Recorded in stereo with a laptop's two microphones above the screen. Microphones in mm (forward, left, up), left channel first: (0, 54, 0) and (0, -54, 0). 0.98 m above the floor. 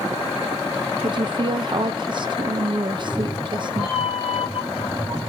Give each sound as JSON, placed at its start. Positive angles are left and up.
{"t": 1.0, "sound": "a woman speaking", "side_deg": -45, "distance_m": 0.5}
{"t": 2.9, "sound": "a cat meowing", "side_deg": -10, "distance_m": 2.0}